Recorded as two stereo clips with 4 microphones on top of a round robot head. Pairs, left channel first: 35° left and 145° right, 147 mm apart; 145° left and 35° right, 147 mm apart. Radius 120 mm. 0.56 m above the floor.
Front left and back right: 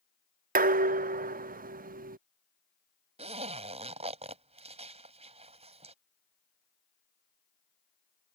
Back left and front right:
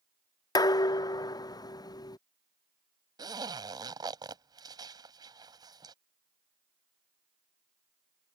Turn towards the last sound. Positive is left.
turn(degrees=-100)